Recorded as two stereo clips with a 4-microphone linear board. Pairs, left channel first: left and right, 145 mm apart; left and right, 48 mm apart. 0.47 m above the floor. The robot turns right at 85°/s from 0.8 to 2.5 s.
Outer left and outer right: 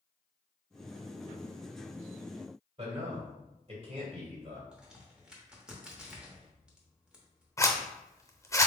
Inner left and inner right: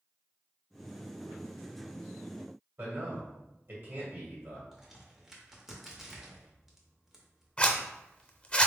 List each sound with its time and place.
2.8 s a man speaking: 50° right (ahead or behind), 1.5 m
4.7 s a crack: 5° right (ahead or behind), 0.8 m
7.6 s a zipper: 20° left (ahead or behind), 0.5 m